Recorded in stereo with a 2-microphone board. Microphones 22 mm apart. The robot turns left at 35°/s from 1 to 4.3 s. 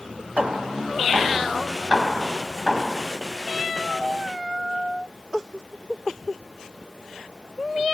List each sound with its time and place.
0.4 s hammering: 80° right, 4 m; by 3.0 s 10° right (ahead or behind), 4 m